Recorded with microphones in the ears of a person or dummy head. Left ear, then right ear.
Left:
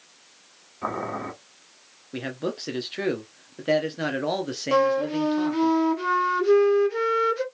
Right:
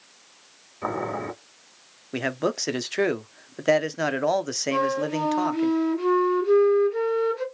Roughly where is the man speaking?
Right.